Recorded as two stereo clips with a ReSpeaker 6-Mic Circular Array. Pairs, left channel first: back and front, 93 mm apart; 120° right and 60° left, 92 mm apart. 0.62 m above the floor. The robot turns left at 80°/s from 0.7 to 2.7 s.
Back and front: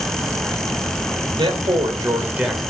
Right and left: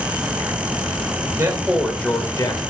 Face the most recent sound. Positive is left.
turn(degrees=-100)